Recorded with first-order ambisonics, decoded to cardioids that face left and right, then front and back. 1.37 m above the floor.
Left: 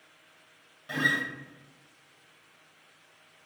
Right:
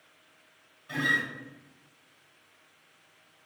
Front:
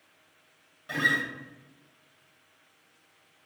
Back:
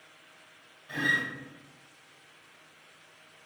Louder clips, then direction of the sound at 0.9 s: Even, front 2 dB; 50° left.